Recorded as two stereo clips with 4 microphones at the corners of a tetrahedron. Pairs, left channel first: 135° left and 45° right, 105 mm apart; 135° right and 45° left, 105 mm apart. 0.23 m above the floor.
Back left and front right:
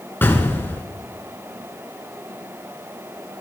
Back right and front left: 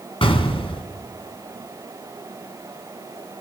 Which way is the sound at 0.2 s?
160° right.